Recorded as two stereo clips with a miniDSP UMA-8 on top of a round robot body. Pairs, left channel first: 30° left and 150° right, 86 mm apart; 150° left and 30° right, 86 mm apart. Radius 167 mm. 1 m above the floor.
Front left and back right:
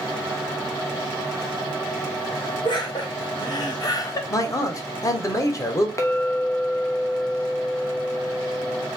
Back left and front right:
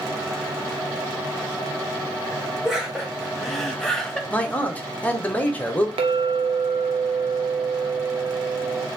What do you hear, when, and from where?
2.6 s laughter: 55° left, 1.7 m; by 4.2 s 75° left, 1.0 m
4.3 s a man speaking: 80° left, 0.9 m
6.0 s a clink: 30° right, 0.5 m